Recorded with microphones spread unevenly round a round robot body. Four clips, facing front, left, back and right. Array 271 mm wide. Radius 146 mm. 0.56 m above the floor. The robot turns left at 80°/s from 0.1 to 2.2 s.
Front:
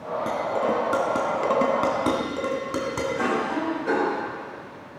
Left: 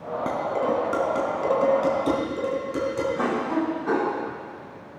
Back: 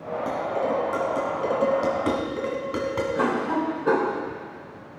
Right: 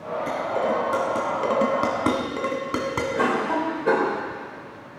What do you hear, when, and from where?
0.3 s dishes clattering: 70° left, 3.5 m; by 3.1 s 85° right, 3.5 m
3.1 s a cough: 130° right, 2.5 m